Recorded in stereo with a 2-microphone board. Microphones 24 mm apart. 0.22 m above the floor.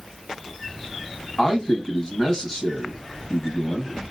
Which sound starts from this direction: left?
A man speaking, at 1.4 s.